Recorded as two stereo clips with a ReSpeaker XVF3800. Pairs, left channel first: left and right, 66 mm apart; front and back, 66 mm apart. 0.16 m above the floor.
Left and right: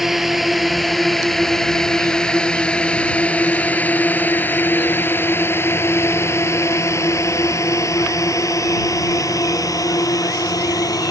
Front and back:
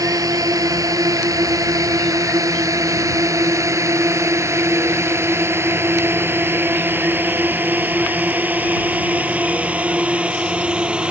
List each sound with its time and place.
0.0 s a drone: 175° right; by 11.1 s 105° left